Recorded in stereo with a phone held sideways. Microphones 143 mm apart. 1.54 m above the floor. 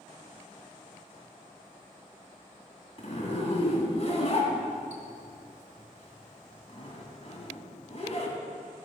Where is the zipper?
50° left (ahead or behind), 2 m.